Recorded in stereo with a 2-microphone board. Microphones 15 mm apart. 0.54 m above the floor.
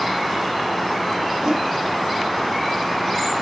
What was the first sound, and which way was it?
A whoosh, 65° right (ahead or behind).